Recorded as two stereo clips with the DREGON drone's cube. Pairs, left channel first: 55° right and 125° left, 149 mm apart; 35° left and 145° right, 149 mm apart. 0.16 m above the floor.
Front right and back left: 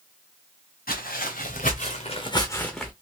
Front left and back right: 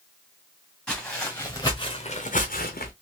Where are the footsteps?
50° right, 1.8 m; by 2.9 s 40° left, 1.1 m.